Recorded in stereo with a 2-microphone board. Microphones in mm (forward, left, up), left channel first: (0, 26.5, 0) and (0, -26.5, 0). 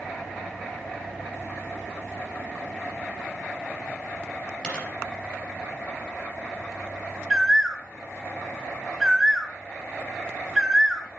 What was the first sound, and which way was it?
A dropped coin, 15° left (ahead or behind).